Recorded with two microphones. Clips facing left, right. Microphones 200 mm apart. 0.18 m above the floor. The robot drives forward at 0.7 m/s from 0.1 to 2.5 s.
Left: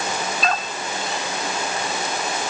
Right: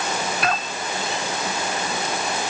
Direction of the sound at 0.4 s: 65° right (ahead or behind).